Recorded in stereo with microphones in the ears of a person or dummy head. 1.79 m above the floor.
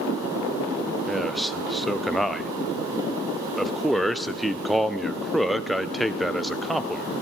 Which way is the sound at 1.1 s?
Centre (ahead or behind).